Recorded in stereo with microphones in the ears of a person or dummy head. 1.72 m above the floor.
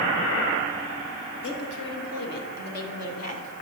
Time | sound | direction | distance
1.4 | a woman speaking | 75° left (ahead or behind) | 2 m